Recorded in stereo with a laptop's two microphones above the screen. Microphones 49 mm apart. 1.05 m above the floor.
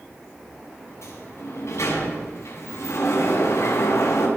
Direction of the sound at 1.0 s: 85° left.